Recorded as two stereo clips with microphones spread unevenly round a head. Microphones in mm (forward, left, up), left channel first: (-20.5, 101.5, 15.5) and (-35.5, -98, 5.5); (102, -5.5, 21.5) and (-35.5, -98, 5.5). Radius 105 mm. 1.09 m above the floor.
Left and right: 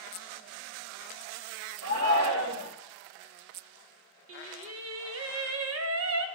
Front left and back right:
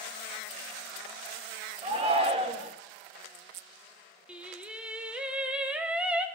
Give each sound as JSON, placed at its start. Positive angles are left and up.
{"t": 1.8, "sound": "a shout", "azimuth_deg": -90, "distance_m": 1.3}
{"t": 4.3, "sound": "singing", "azimuth_deg": -60, "distance_m": 0.8}